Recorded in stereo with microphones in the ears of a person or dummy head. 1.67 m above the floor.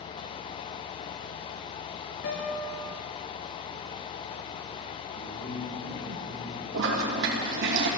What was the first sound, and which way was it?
A guitar, 55° left (ahead or behind).